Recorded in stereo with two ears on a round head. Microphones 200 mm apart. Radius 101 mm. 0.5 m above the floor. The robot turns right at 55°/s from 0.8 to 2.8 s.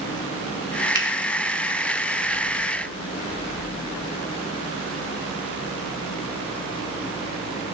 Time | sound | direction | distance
0.9 | a finger snap | 15° right (ahead or behind) | 0.7 m